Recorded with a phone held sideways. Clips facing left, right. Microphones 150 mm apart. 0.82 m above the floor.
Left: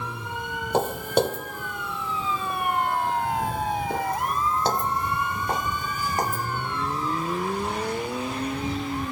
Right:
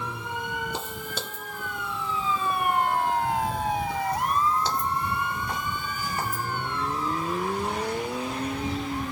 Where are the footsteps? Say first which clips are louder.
Left 12 dB; 60° left (ahead or behind); by 6.5 s 40° left (ahead or behind).